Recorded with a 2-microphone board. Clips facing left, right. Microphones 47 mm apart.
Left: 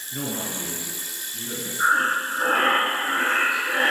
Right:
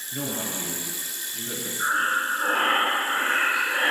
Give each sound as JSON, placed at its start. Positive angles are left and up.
{"t": 0.1, "sound": "a man speaking", "side_deg": 15, "distance_m": 5.0}
{"t": 1.8, "sound": "breathing", "side_deg": 80, "distance_m": 5.0}